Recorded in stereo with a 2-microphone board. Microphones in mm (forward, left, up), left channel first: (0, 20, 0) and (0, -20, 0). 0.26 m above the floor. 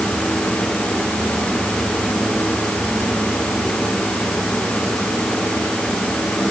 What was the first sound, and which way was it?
Only background noise.